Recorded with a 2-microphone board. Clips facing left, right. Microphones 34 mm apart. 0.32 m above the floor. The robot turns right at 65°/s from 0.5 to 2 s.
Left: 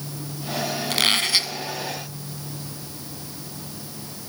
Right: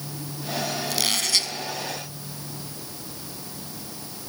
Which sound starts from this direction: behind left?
A squeak, at 0.9 s.